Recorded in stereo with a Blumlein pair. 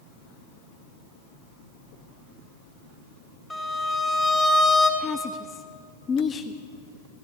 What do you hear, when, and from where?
3.5 s a violin: 10° left, 2.5 m
5.0 s a woman speaking: 20° left, 0.6 m